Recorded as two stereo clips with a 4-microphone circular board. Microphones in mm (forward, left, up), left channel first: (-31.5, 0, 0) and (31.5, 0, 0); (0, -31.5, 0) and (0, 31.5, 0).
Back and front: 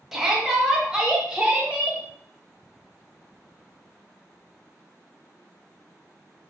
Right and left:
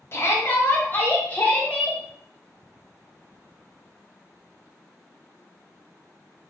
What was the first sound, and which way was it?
A shout, 85° right.